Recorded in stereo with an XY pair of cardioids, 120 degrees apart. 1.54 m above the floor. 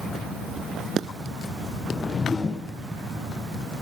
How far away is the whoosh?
About 0.8 m.